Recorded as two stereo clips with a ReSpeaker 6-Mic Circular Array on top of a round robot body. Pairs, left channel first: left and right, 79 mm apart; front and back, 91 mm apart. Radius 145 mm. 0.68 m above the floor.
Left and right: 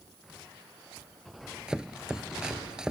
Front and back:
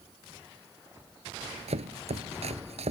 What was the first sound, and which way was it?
Chopping, 170° right.